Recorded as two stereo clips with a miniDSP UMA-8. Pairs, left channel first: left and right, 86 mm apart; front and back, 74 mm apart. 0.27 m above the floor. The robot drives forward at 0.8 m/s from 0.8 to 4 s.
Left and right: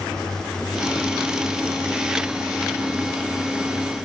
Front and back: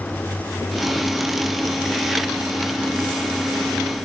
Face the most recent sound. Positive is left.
No sound to turn to.